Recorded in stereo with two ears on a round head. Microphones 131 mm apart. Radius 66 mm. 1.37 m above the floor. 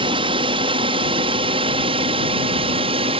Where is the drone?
35° right (ahead or behind); by 3.2 s 40° right (ahead or behind).